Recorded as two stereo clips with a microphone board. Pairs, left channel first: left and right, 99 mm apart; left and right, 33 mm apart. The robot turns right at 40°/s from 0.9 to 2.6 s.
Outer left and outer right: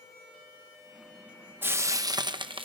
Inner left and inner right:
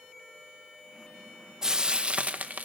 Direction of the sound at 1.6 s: 20° right (ahead or behind).